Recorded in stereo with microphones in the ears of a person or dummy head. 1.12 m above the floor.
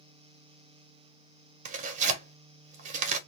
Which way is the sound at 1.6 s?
40° right (ahead or behind).